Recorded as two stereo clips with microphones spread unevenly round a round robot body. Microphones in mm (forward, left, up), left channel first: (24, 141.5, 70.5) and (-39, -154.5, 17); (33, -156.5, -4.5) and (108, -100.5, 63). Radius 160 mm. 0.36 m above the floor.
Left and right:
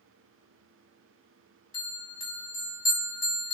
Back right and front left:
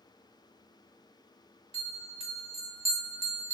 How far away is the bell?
About 1.3 m.